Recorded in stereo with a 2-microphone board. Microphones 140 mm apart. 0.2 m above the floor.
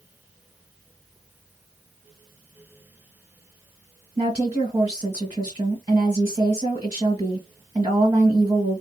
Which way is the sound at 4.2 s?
30° right (ahead or behind).